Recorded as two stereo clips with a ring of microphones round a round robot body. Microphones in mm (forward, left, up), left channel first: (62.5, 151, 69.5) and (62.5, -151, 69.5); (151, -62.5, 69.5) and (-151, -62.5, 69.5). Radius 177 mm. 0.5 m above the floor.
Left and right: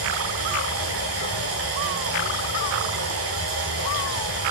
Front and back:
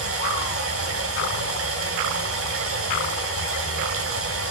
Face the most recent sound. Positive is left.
turn(degrees=-140)